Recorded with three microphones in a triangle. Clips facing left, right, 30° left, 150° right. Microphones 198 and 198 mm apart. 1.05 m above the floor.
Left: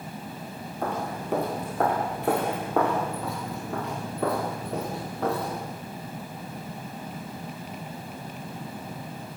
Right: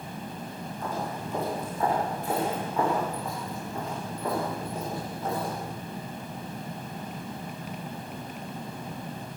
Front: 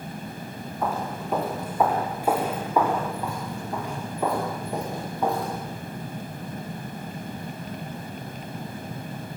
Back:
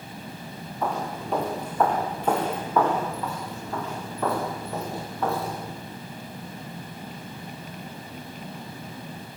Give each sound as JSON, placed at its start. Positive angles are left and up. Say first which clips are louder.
{"t": 0.8, "sound": "footsteps", "louder": "left 3 dB, even", "azimuth_deg": 115, "distance_m": 6.5}